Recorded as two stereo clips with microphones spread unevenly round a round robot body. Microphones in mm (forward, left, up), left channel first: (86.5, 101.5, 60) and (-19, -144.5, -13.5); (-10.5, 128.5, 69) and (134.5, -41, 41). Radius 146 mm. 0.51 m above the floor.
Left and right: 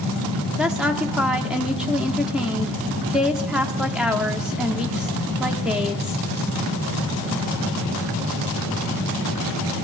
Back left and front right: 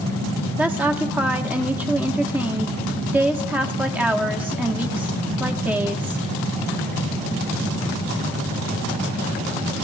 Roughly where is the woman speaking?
Right.